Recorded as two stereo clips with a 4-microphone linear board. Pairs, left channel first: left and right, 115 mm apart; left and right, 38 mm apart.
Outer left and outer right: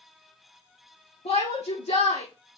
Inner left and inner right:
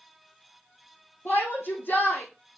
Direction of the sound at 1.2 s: 75° left (ahead or behind).